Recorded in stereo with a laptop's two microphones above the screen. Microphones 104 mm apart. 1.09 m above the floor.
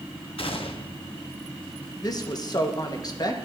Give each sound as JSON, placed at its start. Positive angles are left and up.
{"t": 0.4, "sound": "a gunshot", "side_deg": 60, "distance_m": 0.7}
{"t": 2.0, "sound": "a woman speaking", "side_deg": 40, "distance_m": 0.9}